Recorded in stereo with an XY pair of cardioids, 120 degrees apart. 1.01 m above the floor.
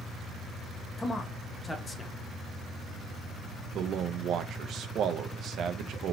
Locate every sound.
1.0 s a man speaking: 25° left, 0.7 m
3.8 s a man speaking: 55° right, 0.5 m